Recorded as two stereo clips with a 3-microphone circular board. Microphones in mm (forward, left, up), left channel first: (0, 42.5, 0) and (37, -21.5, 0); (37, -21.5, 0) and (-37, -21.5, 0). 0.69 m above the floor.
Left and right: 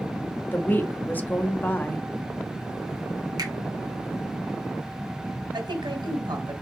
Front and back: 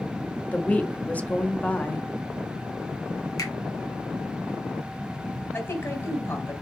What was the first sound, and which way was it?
A woman speaking, 60° left.